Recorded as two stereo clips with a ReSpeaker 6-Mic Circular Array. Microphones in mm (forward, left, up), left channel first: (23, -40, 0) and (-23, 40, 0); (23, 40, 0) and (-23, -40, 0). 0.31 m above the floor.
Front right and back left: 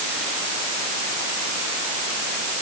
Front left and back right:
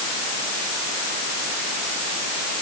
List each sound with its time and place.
Only background noise.